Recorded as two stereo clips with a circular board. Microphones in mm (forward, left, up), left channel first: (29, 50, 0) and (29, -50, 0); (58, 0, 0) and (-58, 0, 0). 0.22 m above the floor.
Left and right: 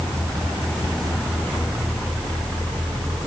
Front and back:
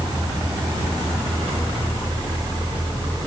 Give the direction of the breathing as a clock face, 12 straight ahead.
No breathing in this recording.